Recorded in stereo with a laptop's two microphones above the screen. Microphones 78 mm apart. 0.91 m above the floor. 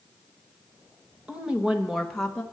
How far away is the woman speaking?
About 1.1 m.